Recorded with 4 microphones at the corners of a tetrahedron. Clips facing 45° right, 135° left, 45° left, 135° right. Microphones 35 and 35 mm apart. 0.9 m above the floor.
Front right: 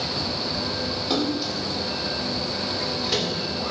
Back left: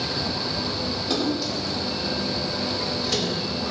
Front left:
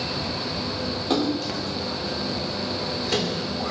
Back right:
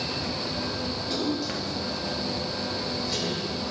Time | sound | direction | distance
1.1 | a splash | 35° left | 3.5 m